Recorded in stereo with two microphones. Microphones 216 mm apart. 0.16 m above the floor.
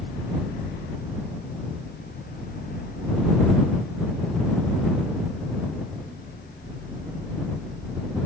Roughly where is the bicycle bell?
No bicycle bell in this recording.